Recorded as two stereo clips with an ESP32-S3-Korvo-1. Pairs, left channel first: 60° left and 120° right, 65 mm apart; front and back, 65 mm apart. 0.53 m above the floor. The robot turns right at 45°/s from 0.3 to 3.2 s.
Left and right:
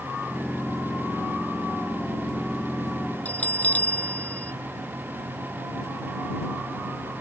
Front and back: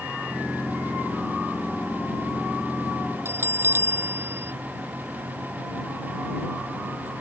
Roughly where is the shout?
I don't hear a shout.